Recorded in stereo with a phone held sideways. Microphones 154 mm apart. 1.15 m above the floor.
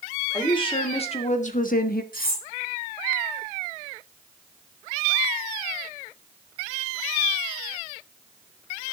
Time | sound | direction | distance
0.3 | a woman speaking | 30° left (ahead or behind) | 3 m
2.1 | cutlery clinking | 70° left (ahead or behind) | 3.5 m